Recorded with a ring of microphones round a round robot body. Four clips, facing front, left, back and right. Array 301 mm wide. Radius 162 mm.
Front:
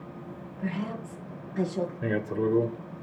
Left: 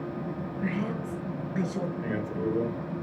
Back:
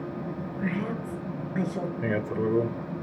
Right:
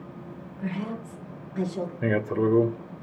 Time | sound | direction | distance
0.6 | a woman speaking | 165° left | 5 m
2.0 | a man speaking | 105° right | 1.3 m